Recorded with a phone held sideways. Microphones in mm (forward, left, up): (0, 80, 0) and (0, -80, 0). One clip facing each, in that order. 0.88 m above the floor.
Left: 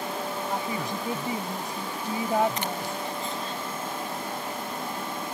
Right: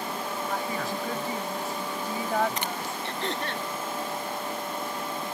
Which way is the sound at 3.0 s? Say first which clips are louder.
Right 1 dB; 75° right (ahead or behind).